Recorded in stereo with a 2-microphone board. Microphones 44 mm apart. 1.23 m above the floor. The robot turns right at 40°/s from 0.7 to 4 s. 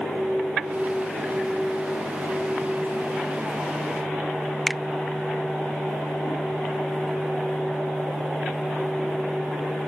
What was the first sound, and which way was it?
A finger snap, 5° left (ahead or behind).